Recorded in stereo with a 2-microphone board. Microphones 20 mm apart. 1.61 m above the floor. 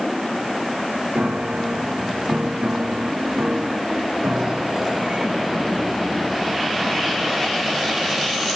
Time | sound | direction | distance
1.1 | a piano | 75° right (ahead or behind) | ?